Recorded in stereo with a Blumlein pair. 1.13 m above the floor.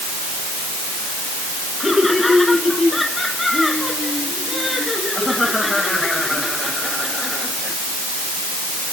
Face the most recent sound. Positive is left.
turn(degrees=5)